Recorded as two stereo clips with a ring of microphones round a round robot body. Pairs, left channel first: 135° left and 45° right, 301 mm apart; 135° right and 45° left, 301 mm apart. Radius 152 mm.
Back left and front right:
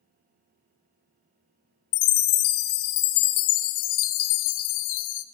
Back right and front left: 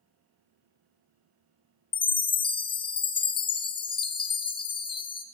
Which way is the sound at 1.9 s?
150° left.